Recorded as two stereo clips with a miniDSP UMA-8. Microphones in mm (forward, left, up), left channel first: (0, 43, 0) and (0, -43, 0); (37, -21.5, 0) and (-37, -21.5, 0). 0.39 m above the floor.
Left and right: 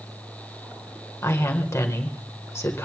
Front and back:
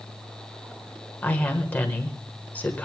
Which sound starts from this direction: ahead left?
A woman speaking, at 1.2 s.